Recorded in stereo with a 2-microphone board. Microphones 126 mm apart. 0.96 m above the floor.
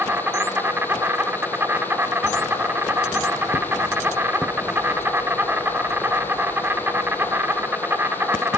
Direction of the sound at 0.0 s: 15° right (ahead or behind).